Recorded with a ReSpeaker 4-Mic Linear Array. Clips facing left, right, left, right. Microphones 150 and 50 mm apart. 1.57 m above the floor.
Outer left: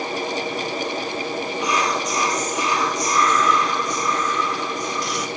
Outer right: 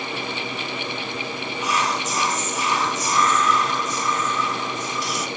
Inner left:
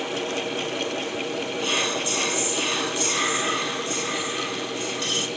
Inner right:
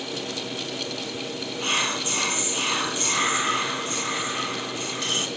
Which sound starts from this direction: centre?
Whispering, at 1.6 s.